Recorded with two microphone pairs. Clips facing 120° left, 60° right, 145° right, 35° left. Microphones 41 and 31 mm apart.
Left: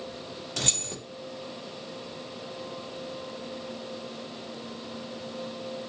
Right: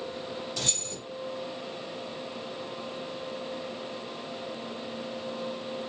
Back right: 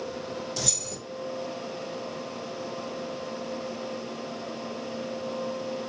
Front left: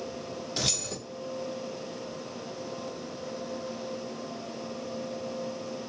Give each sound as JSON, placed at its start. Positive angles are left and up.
{"t": 0.6, "sound": "keys jangling", "azimuth_deg": 85, "distance_m": 0.9}